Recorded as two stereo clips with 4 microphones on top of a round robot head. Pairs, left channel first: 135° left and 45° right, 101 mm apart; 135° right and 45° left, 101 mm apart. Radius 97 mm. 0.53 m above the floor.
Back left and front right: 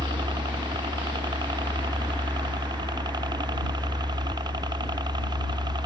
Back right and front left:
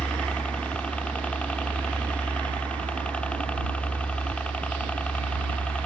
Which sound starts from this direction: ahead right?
A helicopter, at 0.0 s.